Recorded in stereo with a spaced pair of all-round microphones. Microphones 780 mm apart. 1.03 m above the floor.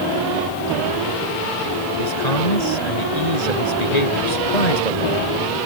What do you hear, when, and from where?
2.0 s a man speaking: 55° left (ahead or behind)